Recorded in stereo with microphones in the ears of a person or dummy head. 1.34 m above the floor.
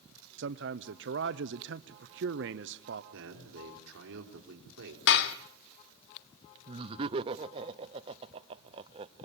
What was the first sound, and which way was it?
A man speaking, 65° right (ahead or behind).